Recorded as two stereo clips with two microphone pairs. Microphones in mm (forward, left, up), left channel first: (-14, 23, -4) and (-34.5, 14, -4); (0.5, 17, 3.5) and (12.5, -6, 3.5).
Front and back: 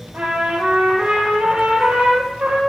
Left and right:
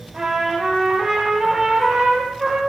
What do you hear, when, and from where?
0.1 s a trumpet: 140° right, 4.5 m